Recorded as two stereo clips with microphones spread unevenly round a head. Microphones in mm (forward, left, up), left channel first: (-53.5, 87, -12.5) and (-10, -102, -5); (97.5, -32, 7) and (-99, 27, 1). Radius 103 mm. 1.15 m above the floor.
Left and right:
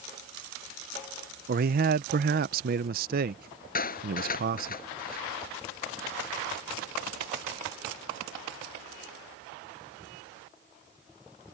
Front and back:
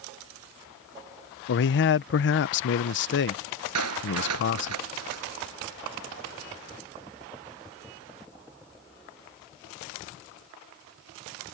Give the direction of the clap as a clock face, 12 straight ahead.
7 o'clock.